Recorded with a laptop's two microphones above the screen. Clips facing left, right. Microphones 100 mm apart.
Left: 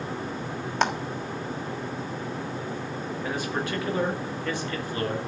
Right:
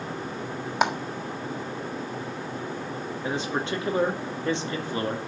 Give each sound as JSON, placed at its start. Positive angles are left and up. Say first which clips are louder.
{"t": 0.8, "sound": "a clap", "louder": "right 1 dB", "side_deg": -10, "distance_m": 1.4}
{"t": 3.2, "sound": "a man speaking", "louder": "right 2 dB", "side_deg": -25, "distance_m": 2.0}